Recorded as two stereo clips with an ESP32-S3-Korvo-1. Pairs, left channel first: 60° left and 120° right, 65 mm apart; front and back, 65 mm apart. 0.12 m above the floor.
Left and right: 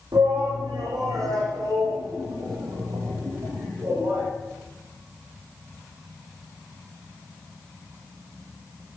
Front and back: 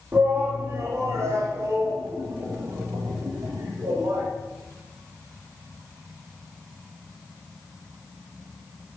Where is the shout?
130° right, 5 m; by 4.3 s 165° right, 4.5 m.